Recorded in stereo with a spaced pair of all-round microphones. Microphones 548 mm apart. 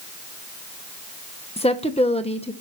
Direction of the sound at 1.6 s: 10° left (ahead or behind).